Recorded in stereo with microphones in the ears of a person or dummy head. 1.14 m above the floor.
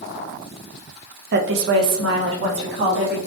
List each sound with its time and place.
1.3 s a woman speaking: 55° right (ahead or behind), 0.6 m; by 3.2 s 65° right (ahead or behind), 1.6 m